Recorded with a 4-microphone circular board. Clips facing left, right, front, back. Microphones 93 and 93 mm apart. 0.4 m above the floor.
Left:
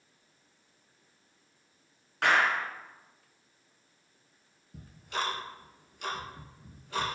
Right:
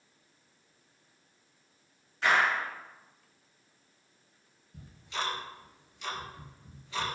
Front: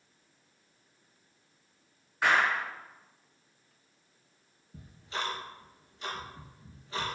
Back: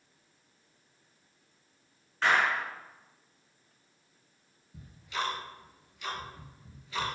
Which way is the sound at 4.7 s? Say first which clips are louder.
Left 2 dB, back 2 dB; 55° left.